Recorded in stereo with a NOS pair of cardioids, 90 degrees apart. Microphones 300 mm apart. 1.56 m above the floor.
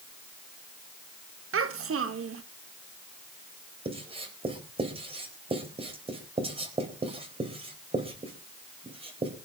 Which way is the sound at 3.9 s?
20° right.